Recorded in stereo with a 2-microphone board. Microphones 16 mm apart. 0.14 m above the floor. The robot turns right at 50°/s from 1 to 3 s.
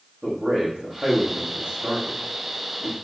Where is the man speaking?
60° right (ahead or behind), 9 m; by 2.9 s 20° right (ahead or behind), 9 m.